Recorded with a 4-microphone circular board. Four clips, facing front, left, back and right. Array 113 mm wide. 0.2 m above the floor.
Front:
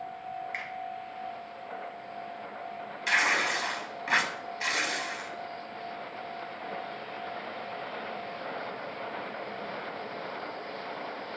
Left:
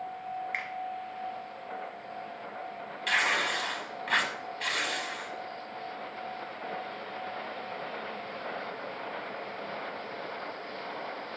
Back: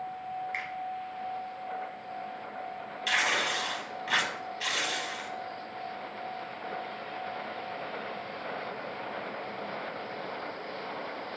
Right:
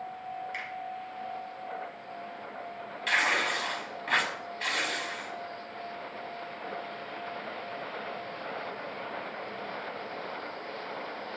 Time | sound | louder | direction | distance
0.5 | a finger snap | left 2 dB, back 1 dB | 95° left | 1.0 m
3.1 | tearing paper | right 1 dB, front 2 dB | 15° right | 0.5 m